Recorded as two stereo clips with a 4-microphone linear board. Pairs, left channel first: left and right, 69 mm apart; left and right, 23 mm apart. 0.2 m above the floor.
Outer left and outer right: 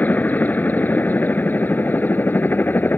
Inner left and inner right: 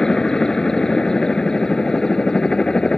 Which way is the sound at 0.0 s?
25° left (ahead or behind).